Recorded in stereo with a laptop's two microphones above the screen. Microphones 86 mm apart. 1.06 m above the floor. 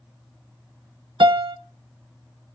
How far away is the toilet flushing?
I don't hear a toilet flushing.